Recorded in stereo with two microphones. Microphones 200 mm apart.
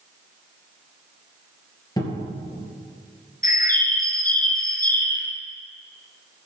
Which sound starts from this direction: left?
A bird, at 3.4 s.